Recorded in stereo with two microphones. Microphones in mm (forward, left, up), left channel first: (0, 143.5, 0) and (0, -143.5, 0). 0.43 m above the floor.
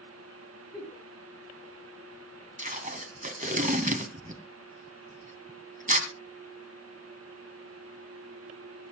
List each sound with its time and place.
0.7 s a giggle: 5° right (ahead or behind), 7 m
2.6 s tape being pulled: 25° right (ahead or behind), 2.0 m